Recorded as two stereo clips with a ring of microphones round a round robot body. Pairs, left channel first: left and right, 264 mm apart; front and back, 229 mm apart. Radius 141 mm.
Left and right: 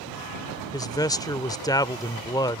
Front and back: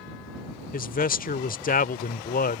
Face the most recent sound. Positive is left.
turn(degrees=20)